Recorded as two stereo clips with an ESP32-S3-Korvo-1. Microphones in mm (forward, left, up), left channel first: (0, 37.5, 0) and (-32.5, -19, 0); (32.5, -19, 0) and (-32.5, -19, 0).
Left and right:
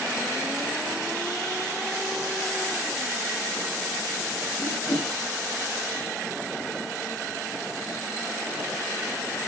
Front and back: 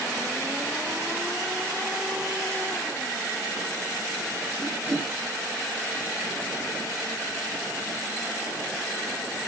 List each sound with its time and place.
4.6 s a whoosh: 130° left, 5.5 m